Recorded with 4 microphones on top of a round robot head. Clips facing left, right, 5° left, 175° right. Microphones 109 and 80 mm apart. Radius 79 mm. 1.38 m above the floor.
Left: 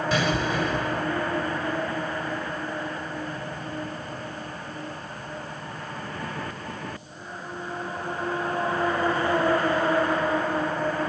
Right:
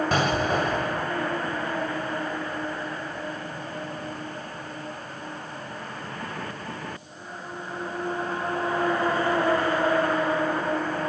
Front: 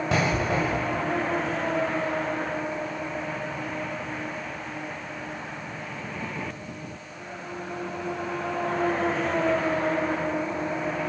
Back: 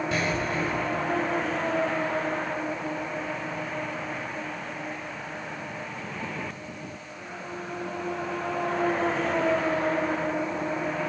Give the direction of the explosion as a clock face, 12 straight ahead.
2 o'clock.